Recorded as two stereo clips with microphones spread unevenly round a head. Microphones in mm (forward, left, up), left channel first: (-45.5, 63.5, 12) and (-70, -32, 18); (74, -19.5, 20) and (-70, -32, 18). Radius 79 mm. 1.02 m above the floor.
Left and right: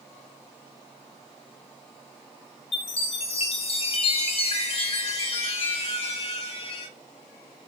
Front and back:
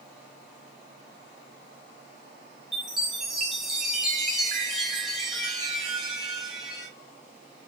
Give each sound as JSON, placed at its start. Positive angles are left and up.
{"t": 2.7, "sound": "a chime", "azimuth_deg": 95, "distance_m": 3.0}